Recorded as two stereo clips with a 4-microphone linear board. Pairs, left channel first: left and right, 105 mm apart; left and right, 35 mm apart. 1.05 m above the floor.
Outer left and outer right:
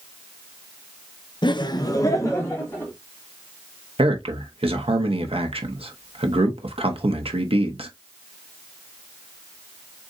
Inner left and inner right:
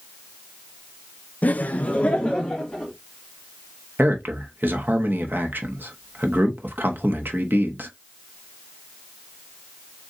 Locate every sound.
1.4 s laughter: 50° left (ahead or behind), 0.7 m; by 2.9 s 25° left (ahead or behind), 2.5 m
4.0 s a man speaking: 75° right (ahead or behind), 1.3 m